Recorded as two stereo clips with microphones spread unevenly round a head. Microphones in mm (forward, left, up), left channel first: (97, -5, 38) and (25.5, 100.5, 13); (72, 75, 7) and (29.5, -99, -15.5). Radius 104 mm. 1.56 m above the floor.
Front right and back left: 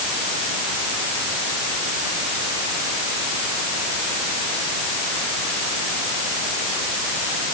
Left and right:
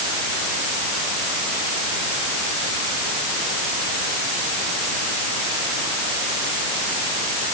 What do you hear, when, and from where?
Only background noise.